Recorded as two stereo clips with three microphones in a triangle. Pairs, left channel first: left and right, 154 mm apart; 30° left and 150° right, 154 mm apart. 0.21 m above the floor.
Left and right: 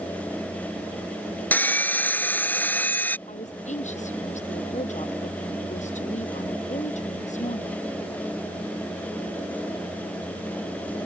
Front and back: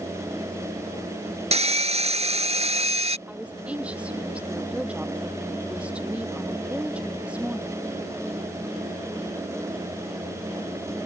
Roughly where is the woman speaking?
Behind left.